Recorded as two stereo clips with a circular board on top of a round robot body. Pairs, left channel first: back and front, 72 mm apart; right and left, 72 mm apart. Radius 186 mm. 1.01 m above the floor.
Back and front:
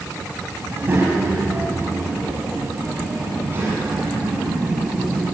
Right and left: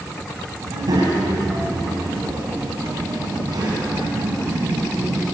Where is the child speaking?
60° left, 4.5 m.